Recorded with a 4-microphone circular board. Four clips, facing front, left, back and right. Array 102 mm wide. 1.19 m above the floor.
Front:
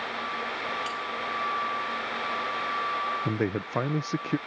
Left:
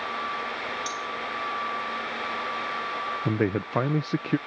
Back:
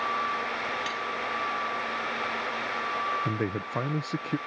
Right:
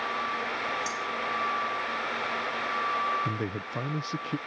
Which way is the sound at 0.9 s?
150° right.